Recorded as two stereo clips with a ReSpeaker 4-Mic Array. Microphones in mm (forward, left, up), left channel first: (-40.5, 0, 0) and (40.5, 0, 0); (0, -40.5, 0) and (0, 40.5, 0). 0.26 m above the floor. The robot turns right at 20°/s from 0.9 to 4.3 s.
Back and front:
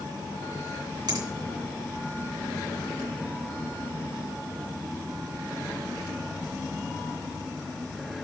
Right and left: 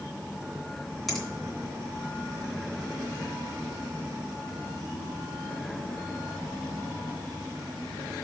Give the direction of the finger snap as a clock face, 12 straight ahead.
12 o'clock.